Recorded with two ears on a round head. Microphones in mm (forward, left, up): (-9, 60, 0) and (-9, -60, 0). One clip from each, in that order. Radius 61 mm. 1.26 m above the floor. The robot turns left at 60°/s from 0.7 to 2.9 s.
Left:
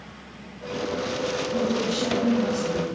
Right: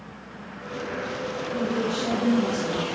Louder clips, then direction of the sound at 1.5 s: Right 1 dB; 45° left.